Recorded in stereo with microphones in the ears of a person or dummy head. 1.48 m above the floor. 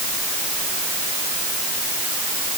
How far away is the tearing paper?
No tearing paper in this recording.